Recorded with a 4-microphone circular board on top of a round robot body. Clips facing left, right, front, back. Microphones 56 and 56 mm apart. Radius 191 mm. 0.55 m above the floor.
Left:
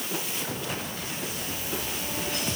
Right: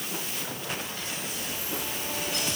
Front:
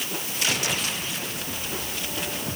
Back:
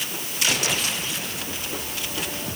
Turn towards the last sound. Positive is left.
No sound to turn to.